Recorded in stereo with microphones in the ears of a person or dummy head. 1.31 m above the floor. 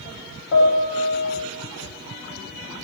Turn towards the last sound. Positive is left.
turn(degrees=60)  # may be behind; listen again after turning